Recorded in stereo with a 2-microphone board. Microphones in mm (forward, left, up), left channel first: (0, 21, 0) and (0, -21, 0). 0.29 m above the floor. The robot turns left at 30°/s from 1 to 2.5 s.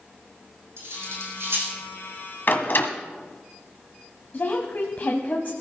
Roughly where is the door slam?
Left.